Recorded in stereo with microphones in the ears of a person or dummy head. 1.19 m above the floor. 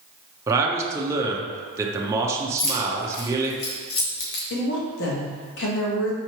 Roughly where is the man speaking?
Centre.